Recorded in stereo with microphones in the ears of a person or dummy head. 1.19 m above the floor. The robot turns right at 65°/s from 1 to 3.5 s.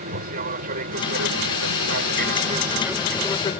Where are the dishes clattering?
I don't hear dishes clattering.